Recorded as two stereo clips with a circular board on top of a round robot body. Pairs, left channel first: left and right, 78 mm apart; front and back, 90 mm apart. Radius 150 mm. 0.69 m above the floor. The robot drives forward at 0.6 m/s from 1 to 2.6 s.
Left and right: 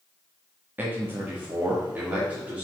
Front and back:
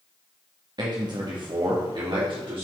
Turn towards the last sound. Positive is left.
turn(degrees=-165)